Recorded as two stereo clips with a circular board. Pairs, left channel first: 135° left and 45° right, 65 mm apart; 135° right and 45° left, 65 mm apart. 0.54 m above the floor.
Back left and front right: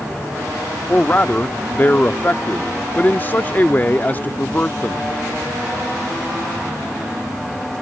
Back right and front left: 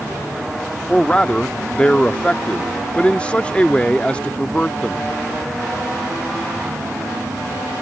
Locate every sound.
0.9 s a man speaking: 165° left